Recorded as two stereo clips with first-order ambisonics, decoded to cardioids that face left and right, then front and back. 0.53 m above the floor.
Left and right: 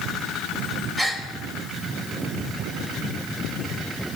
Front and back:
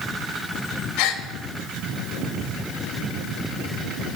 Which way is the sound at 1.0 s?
5° right.